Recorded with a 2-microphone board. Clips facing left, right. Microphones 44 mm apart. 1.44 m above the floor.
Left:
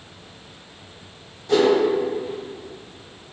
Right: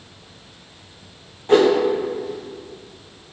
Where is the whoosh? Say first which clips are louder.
Right 3 dB; 35° right (ahead or behind), 1.1 m.